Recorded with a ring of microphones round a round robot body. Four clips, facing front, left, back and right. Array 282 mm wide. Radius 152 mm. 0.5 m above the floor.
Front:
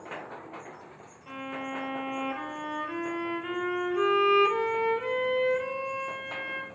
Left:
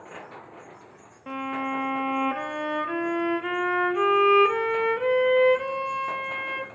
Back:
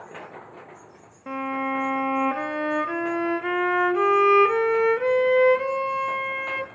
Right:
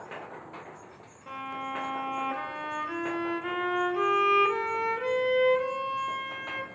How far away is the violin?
About 0.7 m.